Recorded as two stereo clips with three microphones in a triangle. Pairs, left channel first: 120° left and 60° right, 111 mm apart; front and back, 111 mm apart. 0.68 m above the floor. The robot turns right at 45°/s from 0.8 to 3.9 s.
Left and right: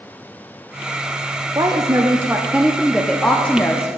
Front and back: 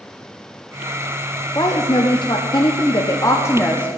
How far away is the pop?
No pop in this recording.